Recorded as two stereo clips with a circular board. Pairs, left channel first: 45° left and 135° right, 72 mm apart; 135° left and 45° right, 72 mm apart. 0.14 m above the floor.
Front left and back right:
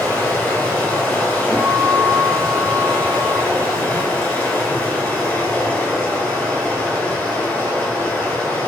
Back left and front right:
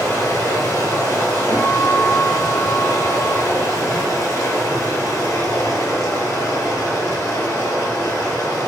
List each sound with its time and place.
0.0 s running water: 105° left, 0.9 m
1.5 s a guitar: 75° right, 0.8 m